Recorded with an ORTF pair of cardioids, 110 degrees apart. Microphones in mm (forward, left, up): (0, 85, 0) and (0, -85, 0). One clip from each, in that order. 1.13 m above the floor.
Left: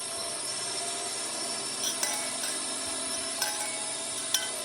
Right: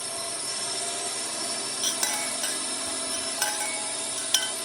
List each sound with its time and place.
0.0 s a drone: 20° right
1.8 s a clink: 30° right